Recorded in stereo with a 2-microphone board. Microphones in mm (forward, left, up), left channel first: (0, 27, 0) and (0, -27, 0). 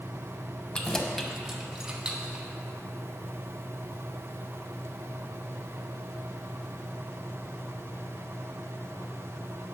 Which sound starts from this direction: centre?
Keys jangling, at 0.7 s.